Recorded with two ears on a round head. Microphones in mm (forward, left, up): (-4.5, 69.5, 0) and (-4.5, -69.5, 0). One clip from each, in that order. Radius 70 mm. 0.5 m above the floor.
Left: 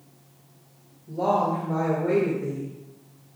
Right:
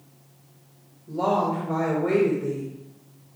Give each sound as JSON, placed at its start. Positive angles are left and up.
{"t": 1.1, "sound": "a woman speaking", "side_deg": -40, "distance_m": 3.0}